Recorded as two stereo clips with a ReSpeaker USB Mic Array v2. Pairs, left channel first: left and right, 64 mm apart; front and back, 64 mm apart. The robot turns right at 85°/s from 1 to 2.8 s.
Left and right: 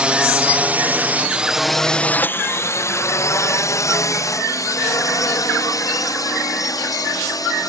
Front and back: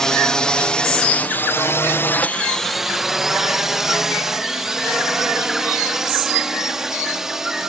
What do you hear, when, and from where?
0.0 s a drone: 60° right; by 7.7 s 95° left